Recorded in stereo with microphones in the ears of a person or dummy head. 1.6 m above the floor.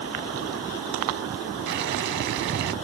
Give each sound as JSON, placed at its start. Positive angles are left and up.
{"t": 1.7, "sound": "boiling", "side_deg": -60}